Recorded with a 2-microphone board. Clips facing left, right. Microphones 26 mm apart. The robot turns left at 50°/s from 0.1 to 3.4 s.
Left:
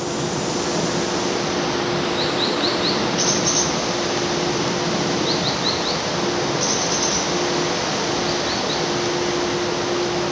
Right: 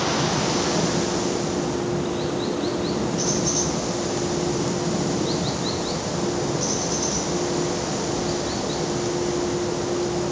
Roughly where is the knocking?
No knocking in this recording.